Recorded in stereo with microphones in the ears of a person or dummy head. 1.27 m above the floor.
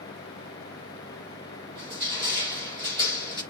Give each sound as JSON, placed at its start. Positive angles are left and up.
{"t": 1.8, "sound": "crushing", "side_deg": -25, "distance_m": 6.5}